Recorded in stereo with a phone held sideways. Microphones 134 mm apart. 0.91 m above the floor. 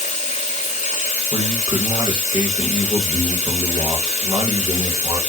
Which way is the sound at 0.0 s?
55° left (ahead or behind).